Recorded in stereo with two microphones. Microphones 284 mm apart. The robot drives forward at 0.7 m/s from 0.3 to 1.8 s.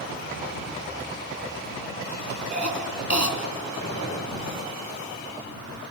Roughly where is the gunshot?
Left.